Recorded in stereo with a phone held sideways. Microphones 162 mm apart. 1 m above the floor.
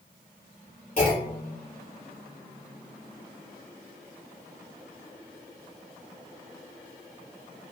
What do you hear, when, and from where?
1.0 s a clunk: 50° left (ahead or behind), 3 m